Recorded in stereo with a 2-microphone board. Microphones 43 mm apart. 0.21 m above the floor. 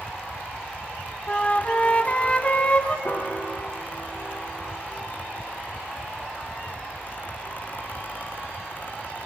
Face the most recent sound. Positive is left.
turn(degrees=45)  # may be behind; listen again after turning